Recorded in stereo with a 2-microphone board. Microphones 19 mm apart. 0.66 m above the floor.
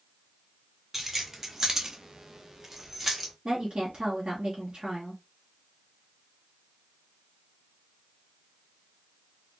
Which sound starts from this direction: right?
A woman speaking, at 3.5 s.